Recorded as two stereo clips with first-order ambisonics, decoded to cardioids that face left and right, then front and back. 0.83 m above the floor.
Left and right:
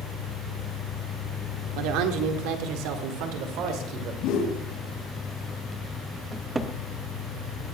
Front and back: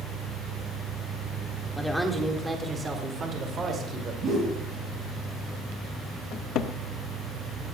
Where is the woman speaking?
85° right, 1.8 m; by 4.1 s 120° right, 2.5 m.